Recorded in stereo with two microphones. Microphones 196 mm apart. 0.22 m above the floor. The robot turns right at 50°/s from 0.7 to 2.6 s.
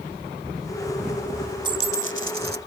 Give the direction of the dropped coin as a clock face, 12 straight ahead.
5 o'clock.